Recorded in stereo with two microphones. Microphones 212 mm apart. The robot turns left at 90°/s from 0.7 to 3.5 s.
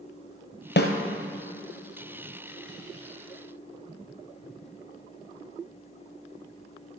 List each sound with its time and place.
0.8 s a snare drum: 60° left (ahead or behind), 1.2 m; by 0.9 s 50° left (ahead or behind), 1.2 m